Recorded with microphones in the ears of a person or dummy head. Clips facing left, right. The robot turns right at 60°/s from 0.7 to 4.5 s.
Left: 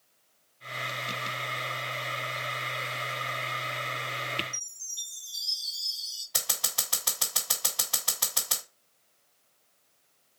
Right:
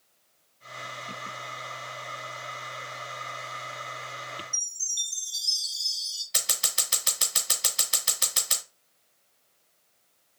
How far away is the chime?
About 1.9 m.